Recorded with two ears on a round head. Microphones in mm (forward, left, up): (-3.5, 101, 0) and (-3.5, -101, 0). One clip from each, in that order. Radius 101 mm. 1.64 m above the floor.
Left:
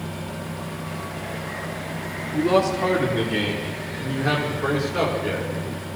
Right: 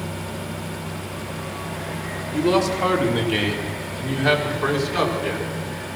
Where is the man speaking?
75° right (ahead or behind), 4.5 m; by 5.5 s 90° right, 6 m.